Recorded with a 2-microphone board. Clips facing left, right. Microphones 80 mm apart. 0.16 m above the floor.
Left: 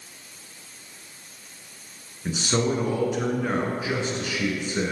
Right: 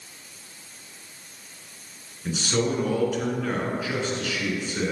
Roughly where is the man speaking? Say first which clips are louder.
Left 1 dB; left.